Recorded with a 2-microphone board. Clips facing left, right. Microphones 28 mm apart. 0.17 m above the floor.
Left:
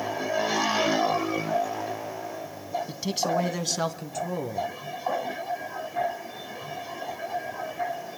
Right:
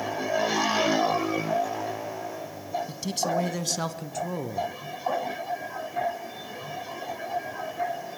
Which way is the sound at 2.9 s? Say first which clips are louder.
Left 2 dB; 20° left (ahead or behind).